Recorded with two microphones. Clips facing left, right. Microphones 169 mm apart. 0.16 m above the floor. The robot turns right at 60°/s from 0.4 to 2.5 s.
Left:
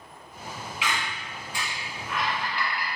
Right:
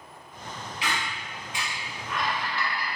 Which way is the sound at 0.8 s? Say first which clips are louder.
Even; 35° right (ahead or behind).